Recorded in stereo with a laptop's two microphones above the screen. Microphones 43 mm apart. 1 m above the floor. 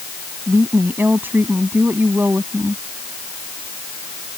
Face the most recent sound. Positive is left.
turn(degrees=-55)  # may be behind; listen again after turning